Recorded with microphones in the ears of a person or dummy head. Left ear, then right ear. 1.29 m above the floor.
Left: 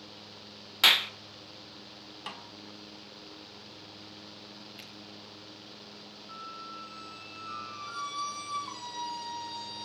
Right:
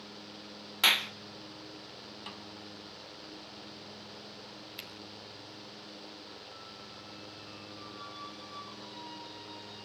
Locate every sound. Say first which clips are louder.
0.8 s a clap: left 4 dB; 5° left (ahead or behind), 0.7 m
2.3 s a snare drum: left 5 dB; 25° left (ahead or behind), 1.4 m
4.8 s a finger snap: right 5 dB; 35° right (ahead or behind), 6 m
6.3 s a squeak: left 5 dB; 60° left (ahead or behind), 2.5 m